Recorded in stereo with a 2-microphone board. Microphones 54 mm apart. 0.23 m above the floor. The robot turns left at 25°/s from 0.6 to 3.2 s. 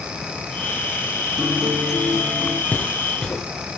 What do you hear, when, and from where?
1.4 s a guitar: 5° right, 6.5 m; by 2.6 s 35° right, 6.5 m
2.7 s footsteps: 25° left (ahead or behind), 2 m; by 3.7 s 15° left (ahead or behind), 2 m